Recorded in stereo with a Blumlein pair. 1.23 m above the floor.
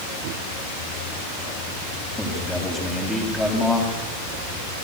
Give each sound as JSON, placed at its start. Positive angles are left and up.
{"t": 2.2, "sound": "a man speaking", "azimuth_deg": 5, "distance_m": 8.0}